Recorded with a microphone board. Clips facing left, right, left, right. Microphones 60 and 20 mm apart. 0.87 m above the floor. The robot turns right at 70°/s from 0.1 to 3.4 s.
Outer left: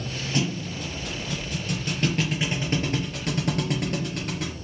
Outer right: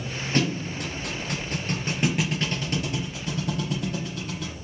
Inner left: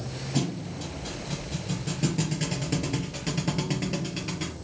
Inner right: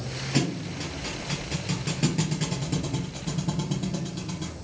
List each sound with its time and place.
0.3 s a thud: 135° right, 4 m; by 4.5 s 80° left, 4 m